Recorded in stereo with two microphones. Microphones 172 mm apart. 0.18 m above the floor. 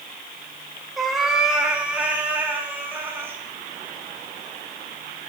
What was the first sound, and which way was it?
A cat meowing, centre (ahead or behind).